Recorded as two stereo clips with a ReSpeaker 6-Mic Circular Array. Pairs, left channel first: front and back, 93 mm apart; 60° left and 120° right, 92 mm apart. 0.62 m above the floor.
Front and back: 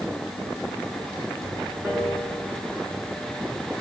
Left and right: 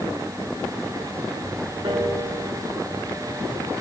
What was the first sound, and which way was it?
A piano, 115° right.